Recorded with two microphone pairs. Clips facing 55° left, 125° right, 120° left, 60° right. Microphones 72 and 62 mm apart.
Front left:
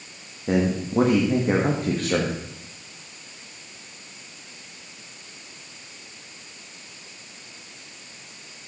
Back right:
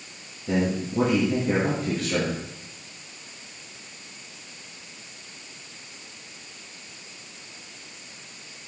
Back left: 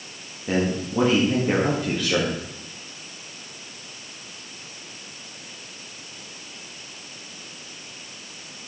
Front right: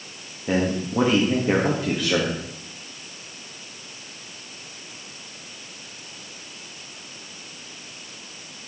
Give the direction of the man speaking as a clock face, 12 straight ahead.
11 o'clock.